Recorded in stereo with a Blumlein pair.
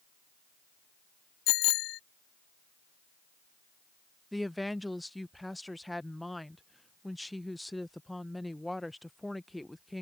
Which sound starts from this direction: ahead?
A woman speaking, at 4.3 s.